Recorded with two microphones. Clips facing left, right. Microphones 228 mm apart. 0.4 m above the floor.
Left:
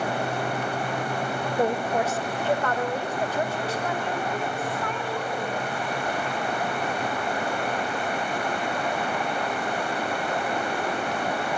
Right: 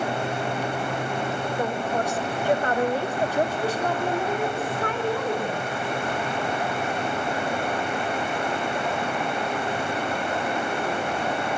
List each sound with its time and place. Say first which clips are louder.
1.6 s a woman speaking: left 4 dB; 30° left (ahead or behind), 0.9 m; by 5.7 s 55° right (ahead or behind), 3.5 m